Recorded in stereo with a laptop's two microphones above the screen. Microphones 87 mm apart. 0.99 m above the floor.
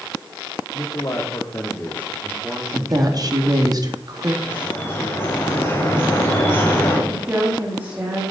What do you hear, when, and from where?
0.7 s a man speaking: 45° left (ahead or behind), 2.5 m; by 3.7 s 15° right (ahead or behind), 2.5 m
2.7 s a woman speaking: 45° right (ahead or behind), 2.5 m
4.4 s dripping: 25° left (ahead or behind), 3 m
7.1 s a woman speaking: 20° right (ahead or behind), 2.0 m